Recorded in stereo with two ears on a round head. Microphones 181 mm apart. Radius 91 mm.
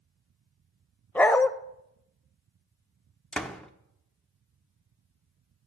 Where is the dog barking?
5° left (ahead or behind), 0.5 m.